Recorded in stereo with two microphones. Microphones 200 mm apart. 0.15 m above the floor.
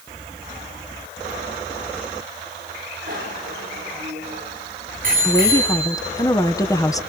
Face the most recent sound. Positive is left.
turn(degrees=20)  # may be behind; listen again after turning